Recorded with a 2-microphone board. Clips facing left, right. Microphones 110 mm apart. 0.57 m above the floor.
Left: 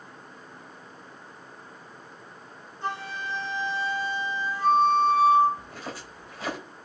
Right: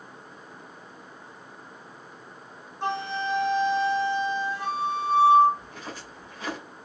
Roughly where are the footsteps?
Left.